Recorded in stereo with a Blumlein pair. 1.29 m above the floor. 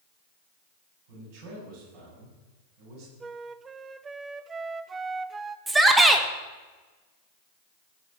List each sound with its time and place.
1.1 s a man speaking: 45° right, 8.5 m
3.2 s a flute: 15° right, 0.6 m
5.7 s a shout: 10° right, 1.9 m